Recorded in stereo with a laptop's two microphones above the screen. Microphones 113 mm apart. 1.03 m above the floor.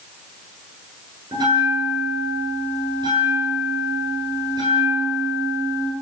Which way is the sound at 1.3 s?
40° right (ahead or behind).